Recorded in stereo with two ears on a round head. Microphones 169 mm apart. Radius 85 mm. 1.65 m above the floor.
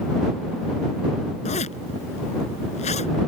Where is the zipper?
35° left (ahead or behind).